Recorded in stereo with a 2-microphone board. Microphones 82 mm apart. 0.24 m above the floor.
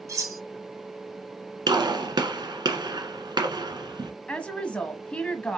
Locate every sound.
0.1 s cutlery clinking: 45° right (ahead or behind), 1.1 m
1.7 s a gunshot: 65° right (ahead or behind), 1.2 m
4.3 s a woman speaking: 15° left (ahead or behind), 1.3 m